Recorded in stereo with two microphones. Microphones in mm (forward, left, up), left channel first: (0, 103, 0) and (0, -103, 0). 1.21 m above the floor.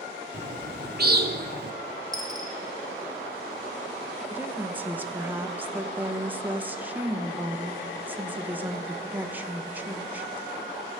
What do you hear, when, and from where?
0.3 s a bird: 50° right (ahead or behind), 0.8 m
2.1 s a dropped coin: 20° right (ahead or behind), 2.0 m
4.3 s a woman speaking: 10° right (ahead or behind), 1.0 m